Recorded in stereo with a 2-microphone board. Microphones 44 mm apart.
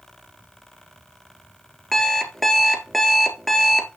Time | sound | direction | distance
1.9 | an alarm clock | 5° left (ahead or behind) | 2.0 m